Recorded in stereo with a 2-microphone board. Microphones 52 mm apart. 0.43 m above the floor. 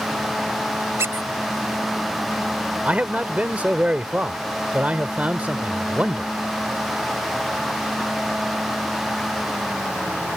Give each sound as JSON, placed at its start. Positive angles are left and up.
{"t": 1.0, "sound": "a squeak", "side_deg": -65}
{"t": 2.9, "sound": "a man speaking", "side_deg": -30}